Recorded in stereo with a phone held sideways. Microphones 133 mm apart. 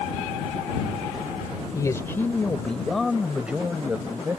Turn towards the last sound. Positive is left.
turn(degrees=-15)  # may be behind; listen again after turning